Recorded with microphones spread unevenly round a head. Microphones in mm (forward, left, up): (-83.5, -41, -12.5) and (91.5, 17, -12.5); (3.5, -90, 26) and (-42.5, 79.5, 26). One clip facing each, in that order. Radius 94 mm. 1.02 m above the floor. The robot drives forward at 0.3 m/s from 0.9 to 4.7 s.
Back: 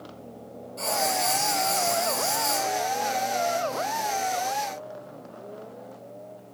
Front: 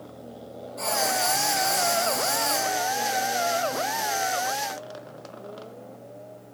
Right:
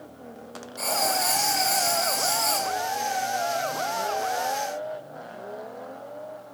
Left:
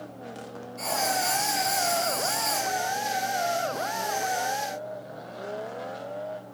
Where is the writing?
100° right, 2 m; by 2.7 s 115° right, 2 m.